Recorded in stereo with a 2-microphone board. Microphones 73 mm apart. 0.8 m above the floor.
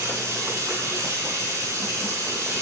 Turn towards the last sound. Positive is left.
turn(degrees=-45)  # may be behind; listen again after turning